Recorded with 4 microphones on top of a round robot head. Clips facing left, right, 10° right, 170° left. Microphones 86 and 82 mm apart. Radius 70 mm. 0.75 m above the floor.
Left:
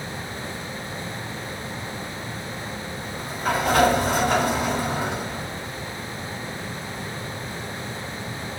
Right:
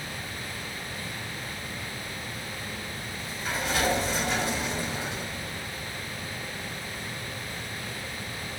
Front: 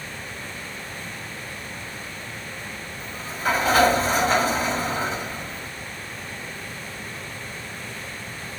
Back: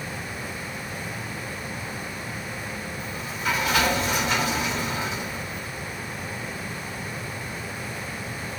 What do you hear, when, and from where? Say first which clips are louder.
3.0 s a sliding door: left 12 dB, front 4 dB; 45° left, 2.0 m